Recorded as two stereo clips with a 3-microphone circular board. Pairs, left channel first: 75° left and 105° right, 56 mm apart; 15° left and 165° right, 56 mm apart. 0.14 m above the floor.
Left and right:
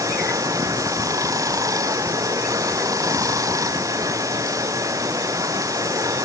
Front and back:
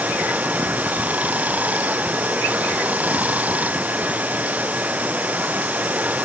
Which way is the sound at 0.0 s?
100° right.